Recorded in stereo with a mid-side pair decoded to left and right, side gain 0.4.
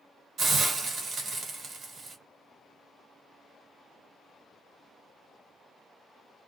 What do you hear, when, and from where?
0.4 s a hiss: 55° right, 1.3 m